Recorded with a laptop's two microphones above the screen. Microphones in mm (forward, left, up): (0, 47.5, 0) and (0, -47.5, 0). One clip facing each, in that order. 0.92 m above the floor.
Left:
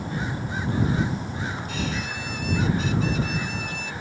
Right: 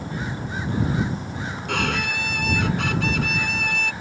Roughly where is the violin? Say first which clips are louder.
Right 4 dB; right.